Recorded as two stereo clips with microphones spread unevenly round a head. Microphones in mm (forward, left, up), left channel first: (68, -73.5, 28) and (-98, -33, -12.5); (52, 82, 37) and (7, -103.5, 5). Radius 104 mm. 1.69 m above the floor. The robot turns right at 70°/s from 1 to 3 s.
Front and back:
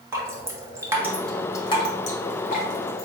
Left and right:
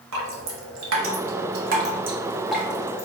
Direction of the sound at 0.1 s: 110° right.